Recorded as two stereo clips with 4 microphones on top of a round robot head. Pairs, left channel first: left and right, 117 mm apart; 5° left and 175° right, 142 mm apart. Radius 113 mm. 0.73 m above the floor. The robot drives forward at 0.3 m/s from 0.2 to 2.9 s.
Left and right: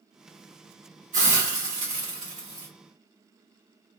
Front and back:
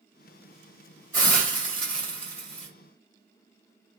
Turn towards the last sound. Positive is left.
turn(degrees=-125)